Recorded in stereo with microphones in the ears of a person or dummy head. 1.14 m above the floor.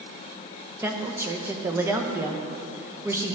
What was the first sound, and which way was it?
A woman speaking, 10° right (ahead or behind).